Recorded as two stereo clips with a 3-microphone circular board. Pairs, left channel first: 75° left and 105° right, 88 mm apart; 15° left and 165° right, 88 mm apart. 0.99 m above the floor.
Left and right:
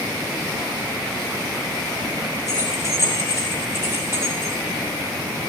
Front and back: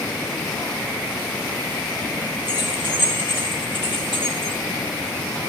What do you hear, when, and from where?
2.5 s keys jangling: 155° right, 7.5 m; by 4.5 s 165° right, 6.5 m